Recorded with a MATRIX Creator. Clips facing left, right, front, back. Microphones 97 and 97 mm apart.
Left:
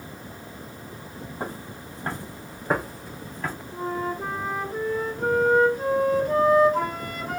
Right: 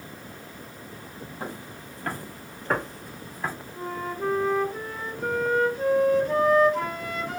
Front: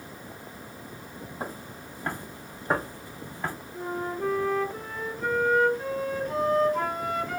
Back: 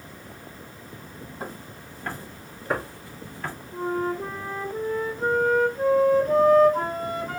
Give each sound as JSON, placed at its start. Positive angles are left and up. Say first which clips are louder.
{"t": 1.4, "sound": "footsteps", "louder": "left 3 dB, front 1 dB", "azimuth_deg": 70, "distance_m": 1.7}
{"t": 3.7, "sound": "a flute", "louder": "left 4 dB, back 8 dB", "azimuth_deg": 135, "distance_m": 1.3}